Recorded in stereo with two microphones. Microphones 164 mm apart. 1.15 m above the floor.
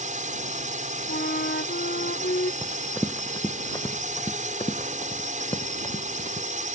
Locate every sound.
0.0 s a drone: 50° right (ahead or behind)
1.1 s a flute: 70° left (ahead or behind)
2.6 s running footsteps: centre (ahead or behind); by 6.5 s 35° left (ahead or behind)